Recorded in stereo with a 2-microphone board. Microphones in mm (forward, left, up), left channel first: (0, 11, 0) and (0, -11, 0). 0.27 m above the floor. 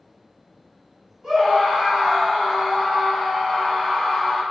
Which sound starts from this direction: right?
A scream, at 1.2 s.